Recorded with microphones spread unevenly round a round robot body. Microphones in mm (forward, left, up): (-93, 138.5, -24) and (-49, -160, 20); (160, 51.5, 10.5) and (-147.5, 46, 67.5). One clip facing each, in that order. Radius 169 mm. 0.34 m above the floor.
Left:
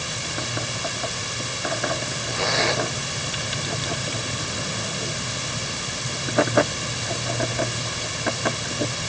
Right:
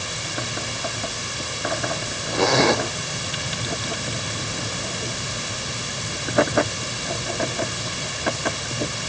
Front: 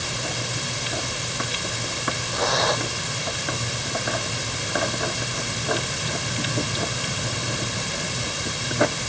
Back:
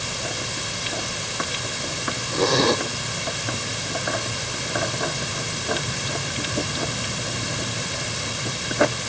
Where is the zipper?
120° right.